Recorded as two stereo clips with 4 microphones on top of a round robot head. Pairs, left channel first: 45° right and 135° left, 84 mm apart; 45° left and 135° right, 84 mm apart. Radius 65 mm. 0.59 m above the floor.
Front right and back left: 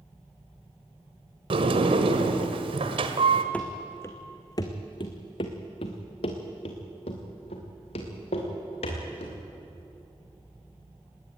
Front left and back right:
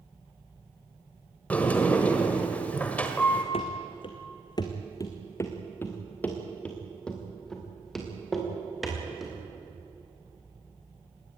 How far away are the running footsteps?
About 2.0 m.